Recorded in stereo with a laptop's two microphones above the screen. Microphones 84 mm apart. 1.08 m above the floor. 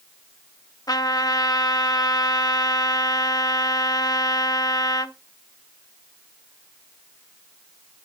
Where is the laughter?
I don't hear laughter.